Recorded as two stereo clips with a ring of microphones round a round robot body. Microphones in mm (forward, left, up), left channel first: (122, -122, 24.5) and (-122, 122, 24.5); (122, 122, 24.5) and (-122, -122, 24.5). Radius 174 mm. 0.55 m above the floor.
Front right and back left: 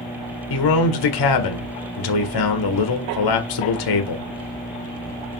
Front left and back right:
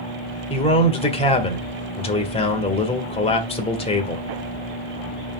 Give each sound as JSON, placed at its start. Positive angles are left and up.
{"t": 0.5, "sound": "a man speaking", "azimuth_deg": -30, "distance_m": 1.7}